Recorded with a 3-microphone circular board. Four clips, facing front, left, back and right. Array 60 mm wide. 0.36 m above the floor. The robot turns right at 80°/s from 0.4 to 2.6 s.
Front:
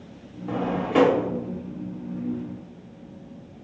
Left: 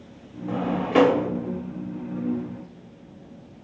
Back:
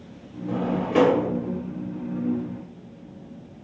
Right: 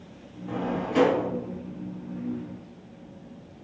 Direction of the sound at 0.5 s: 30° left.